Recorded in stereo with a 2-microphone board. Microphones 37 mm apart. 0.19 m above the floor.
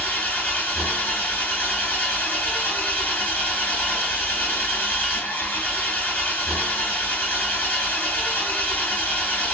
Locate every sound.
0.0 s an engine running: 65° left (ahead or behind), 1.6 m